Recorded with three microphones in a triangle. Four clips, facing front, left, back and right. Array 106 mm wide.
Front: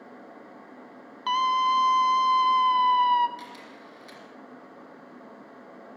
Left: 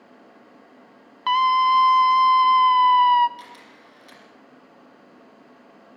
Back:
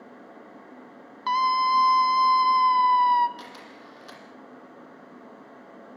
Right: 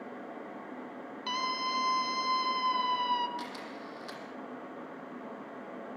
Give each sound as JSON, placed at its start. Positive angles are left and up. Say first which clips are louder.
{"t": 1.3, "sound": "a scream", "louder": "left 17 dB, back 1 dB", "azimuth_deg": 100, "distance_m": 1.7}
{"t": 3.4, "sound": "a camera shutter", "louder": "right 3 dB, even", "azimuth_deg": -140, "distance_m": 7.5}